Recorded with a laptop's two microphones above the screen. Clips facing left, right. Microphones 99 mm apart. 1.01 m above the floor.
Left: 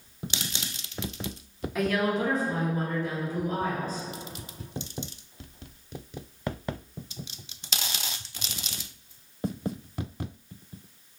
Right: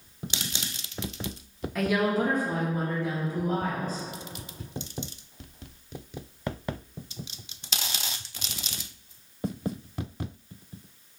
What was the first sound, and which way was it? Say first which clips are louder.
A woman speaking: right 1 dB; 5° left (ahead or behind).